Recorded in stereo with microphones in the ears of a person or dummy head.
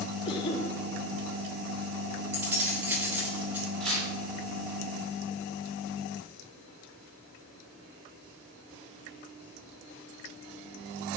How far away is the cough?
About 4 m.